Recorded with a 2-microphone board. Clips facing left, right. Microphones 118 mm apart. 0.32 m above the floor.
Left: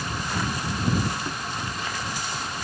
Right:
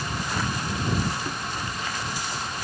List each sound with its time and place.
Only background noise.